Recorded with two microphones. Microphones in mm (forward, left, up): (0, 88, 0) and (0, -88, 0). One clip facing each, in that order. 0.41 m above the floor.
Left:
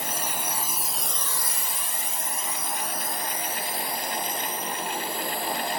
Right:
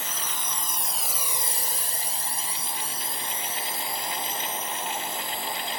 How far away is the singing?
I don't hear singing.